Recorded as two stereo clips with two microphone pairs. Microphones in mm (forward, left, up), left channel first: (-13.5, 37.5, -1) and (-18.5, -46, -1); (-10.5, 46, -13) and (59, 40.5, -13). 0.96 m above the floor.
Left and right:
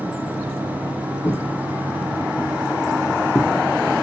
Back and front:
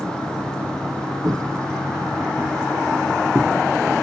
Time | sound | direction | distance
1.2 | footsteps | 50° left | 2.5 m